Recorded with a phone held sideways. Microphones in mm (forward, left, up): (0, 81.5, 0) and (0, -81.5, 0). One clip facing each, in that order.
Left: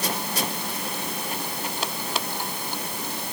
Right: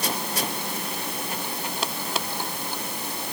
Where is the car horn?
No car horn in this recording.